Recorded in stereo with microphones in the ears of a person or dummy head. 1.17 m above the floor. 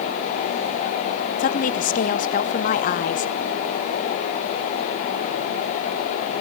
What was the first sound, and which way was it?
A woman speaking, 40° left (ahead or behind).